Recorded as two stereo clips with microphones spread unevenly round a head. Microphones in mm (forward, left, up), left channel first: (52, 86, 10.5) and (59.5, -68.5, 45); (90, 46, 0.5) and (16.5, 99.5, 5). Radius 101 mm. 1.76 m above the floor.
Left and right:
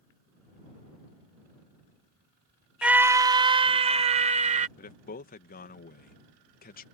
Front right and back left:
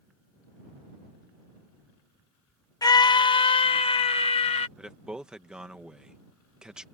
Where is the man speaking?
65° left.